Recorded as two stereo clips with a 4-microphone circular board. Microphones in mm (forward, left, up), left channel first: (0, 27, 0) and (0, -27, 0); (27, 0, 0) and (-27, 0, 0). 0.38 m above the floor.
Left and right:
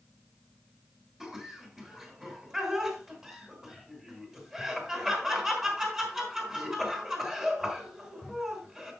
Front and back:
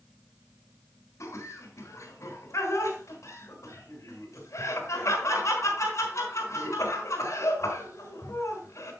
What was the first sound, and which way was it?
Laughter, 15° right.